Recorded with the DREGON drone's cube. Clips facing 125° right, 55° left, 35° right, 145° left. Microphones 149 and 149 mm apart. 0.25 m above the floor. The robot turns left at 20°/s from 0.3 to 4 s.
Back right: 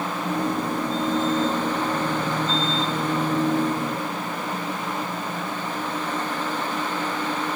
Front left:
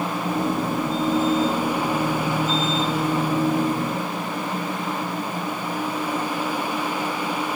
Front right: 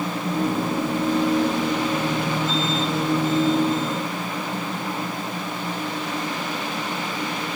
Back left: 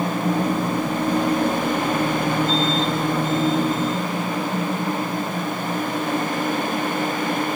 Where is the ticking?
I don't hear ticking.